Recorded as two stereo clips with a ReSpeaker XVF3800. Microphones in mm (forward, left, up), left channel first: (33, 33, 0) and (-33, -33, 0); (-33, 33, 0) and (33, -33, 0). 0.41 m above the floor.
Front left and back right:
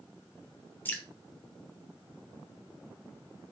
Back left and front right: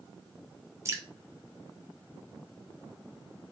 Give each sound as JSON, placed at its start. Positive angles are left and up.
{"t": 0.8, "sound": "dripping", "azimuth_deg": -10, "distance_m": 0.6}